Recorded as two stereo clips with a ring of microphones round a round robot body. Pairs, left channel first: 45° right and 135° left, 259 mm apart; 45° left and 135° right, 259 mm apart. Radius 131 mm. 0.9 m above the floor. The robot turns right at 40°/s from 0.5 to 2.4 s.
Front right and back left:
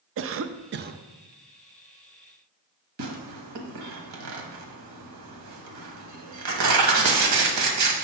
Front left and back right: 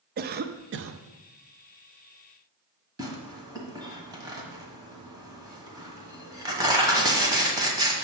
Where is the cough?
175° left, 0.5 m; by 1.0 s 165° right, 0.5 m.